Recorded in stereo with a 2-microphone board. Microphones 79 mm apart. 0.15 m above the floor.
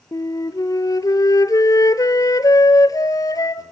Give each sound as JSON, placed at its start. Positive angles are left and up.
{"t": 0.1, "sound": "a flute", "side_deg": 50, "distance_m": 0.9}